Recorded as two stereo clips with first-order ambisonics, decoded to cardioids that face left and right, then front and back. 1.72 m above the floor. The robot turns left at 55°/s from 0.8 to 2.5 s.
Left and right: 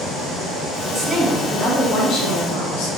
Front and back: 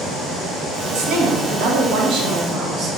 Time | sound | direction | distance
0.9 | a woman speaking | 160° right | 0.8 m